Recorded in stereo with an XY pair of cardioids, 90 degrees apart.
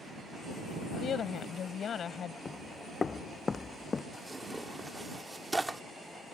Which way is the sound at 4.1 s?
15° right.